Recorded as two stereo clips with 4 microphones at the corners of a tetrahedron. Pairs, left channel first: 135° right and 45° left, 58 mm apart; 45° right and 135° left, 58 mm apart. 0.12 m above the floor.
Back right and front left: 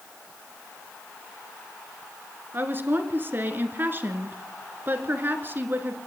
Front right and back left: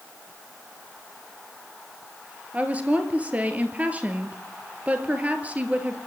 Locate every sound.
2.5 s a woman speaking: 85° left, 1.9 m